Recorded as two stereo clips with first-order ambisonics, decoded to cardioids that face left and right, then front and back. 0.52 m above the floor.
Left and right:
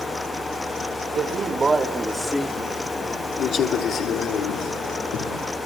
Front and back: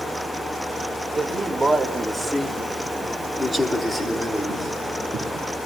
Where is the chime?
No chime in this recording.